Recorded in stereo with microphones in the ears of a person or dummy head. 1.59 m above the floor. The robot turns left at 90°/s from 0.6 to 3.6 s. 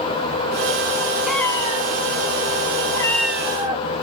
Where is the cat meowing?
5° right (ahead or behind), 1.2 m; by 4.0 s 20° right (ahead or behind), 1.2 m.